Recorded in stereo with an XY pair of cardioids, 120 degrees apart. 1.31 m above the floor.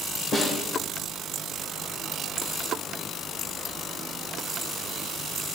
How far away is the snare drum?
About 3.5 m.